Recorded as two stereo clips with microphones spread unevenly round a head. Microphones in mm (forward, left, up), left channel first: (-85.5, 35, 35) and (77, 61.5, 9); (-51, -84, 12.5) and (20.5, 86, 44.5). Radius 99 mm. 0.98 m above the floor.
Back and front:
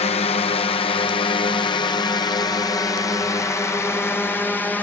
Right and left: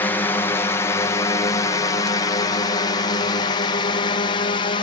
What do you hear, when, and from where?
0.0 s a drone: 160° right; by 4.8 s 85° right